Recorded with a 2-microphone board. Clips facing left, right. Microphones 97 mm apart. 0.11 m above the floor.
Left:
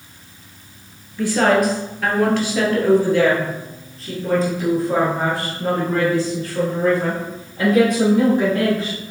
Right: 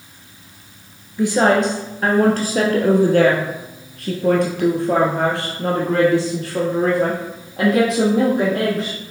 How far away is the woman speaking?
About 1.7 m.